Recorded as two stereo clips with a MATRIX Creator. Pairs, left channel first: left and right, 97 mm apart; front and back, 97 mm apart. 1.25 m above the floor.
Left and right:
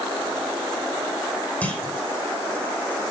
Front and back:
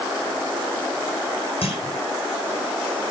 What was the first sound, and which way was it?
A clunk, 15° left.